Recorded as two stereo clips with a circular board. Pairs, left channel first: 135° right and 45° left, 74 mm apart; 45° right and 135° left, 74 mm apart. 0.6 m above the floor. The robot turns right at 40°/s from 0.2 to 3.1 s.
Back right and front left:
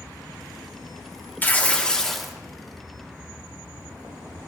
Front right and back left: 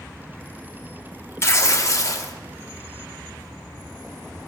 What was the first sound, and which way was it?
Tearing paper, 80° right.